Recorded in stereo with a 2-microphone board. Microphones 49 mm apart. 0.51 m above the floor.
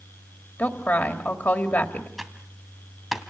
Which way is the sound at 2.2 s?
Centre (ahead or behind).